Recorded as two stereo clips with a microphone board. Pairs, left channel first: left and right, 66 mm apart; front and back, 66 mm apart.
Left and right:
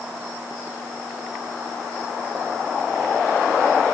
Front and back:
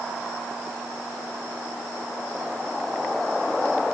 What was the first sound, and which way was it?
Only background noise.